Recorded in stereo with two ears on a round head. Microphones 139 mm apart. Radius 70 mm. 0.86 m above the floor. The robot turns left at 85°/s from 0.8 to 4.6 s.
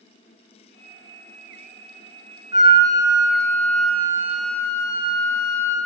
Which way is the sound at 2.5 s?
20° right.